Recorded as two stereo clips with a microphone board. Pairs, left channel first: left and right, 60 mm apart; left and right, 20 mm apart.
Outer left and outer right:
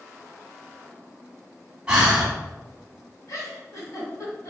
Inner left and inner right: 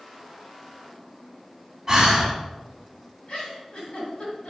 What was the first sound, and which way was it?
Breathing, 15° right (ahead or behind).